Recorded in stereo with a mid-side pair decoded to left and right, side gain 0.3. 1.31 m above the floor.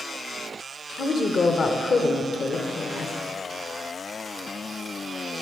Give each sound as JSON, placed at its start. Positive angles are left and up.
{"t": 1.0, "sound": "a woman speaking", "azimuth_deg": 65, "distance_m": 0.8}